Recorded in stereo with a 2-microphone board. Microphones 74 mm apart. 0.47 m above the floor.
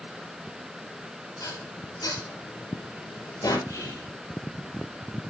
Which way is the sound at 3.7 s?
65° left (ahead or behind).